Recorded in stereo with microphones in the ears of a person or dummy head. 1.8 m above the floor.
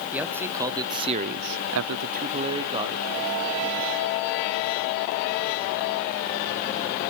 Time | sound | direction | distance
0.1 | a man speaking | 5° right (ahead or behind) | 2.0 m